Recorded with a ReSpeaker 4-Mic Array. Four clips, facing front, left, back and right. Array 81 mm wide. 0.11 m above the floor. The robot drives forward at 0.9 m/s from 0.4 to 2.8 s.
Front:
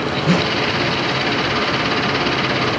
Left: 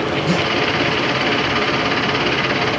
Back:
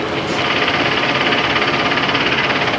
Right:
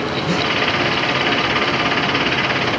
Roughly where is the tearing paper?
Ahead.